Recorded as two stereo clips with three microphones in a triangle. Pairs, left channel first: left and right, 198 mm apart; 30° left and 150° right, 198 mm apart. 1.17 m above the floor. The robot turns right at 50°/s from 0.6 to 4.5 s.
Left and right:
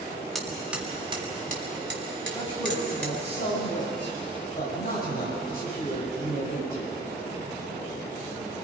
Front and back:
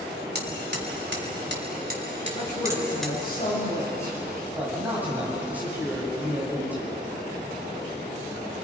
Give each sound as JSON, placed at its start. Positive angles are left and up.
{"t": 0.3, "sound": "hammering", "azimuth_deg": 180, "distance_m": 3.0}
{"t": 2.3, "sound": "a man speaking", "azimuth_deg": 20, "distance_m": 8.0}